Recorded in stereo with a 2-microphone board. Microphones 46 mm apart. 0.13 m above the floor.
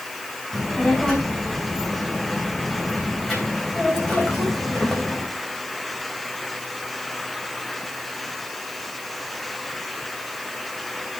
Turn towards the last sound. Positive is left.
turn(degrees=10)  # may be behind; listen again after turning